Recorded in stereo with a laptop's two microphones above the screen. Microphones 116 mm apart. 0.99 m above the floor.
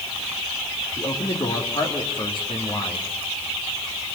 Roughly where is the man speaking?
Left.